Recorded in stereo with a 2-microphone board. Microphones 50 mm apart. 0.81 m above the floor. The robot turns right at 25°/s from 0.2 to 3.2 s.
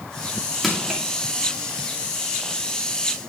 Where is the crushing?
Centre (ahead or behind), 2 m; by 1.0 s 10° right (ahead or behind), 2 m.